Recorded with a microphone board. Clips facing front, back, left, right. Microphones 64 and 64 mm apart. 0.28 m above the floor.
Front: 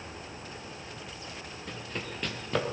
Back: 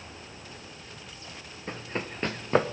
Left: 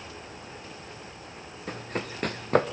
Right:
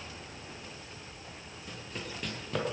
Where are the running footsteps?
125° left, 1.1 m.